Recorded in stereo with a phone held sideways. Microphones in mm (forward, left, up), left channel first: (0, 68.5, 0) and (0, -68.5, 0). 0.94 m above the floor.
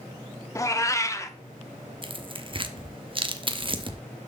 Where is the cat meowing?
25° left (ahead or behind), 0.7 m.